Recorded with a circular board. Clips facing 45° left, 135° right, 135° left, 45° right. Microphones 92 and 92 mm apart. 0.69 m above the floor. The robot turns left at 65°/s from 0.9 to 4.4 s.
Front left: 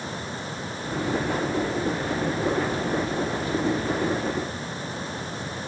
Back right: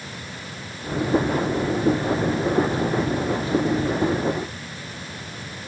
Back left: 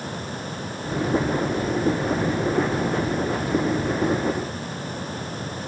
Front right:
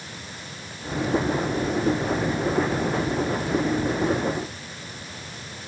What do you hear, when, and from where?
Only background noise.